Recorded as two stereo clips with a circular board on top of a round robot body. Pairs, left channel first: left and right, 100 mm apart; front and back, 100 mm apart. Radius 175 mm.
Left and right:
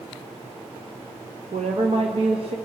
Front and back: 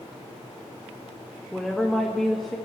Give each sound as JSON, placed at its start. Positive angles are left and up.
{"t": 1.5, "sound": "a woman speaking", "azimuth_deg": -90, "distance_m": 1.2}